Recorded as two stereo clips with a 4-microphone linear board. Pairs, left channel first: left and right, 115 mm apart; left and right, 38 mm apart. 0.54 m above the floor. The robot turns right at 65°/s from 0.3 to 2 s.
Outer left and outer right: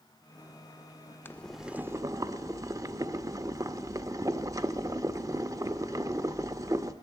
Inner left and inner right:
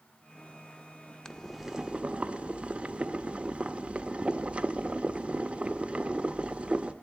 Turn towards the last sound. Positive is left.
turn(degrees=-150)